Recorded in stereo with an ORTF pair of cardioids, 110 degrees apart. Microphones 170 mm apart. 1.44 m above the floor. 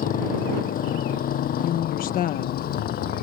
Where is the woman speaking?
60° left.